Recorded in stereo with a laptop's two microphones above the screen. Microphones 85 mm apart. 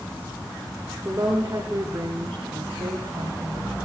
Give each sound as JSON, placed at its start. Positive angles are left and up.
{"t": 1.1, "sound": "a woman speaking", "side_deg": -40, "distance_m": 3.0}